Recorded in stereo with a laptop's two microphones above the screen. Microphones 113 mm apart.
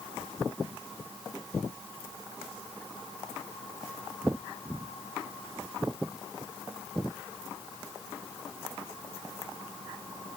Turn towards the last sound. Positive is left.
No sound to turn to.